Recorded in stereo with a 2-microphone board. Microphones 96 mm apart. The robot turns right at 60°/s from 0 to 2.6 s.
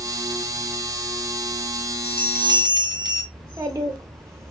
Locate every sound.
2.0 s a bell: 85° right, 1.2 m; by 3.2 s 50° right, 1.2 m
3.3 s a child speaking: 40° right (ahead or behind), 0.8 m